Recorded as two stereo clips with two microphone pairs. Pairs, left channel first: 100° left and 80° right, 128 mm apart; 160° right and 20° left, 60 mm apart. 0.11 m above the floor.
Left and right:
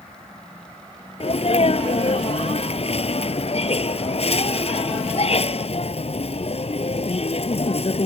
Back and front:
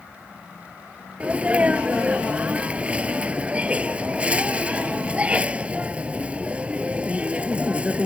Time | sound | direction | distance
1.2 | a sneeze | 85° left | ?